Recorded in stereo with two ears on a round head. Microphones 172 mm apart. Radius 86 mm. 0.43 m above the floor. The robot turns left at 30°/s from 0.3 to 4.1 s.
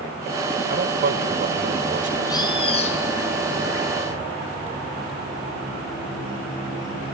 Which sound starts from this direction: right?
A man speaking, at 0.7 s.